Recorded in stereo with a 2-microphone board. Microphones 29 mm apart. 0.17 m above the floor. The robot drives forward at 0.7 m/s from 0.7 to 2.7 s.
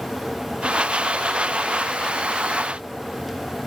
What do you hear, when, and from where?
Only background noise.